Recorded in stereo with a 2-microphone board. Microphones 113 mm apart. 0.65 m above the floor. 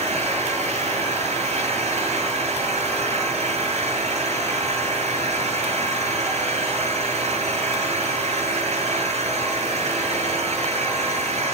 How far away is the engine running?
About 7 m.